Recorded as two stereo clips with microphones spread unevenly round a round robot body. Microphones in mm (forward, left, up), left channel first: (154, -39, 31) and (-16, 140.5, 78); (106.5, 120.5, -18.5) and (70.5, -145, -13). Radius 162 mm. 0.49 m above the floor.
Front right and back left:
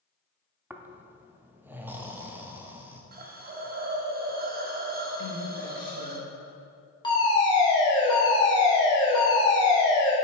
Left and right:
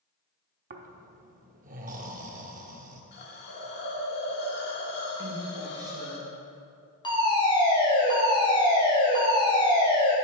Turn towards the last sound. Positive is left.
turn(degrees=15)